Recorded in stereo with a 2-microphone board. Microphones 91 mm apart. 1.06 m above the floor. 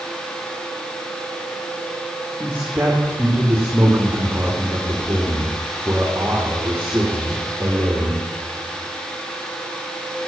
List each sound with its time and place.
2.4 s a man speaking: 20° right (ahead or behind), 2.5 m